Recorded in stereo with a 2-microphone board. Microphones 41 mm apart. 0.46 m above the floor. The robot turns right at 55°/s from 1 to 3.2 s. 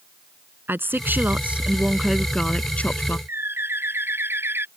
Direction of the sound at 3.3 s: 70° right (ahead or behind).